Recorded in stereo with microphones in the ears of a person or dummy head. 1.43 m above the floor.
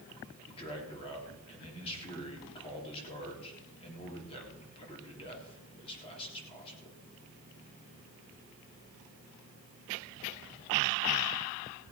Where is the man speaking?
30° left (ahead or behind), 3.5 m.